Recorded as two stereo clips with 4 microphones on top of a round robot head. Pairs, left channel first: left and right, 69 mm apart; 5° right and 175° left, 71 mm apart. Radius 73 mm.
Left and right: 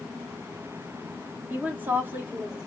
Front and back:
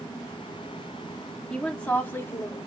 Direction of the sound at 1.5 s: 85° right.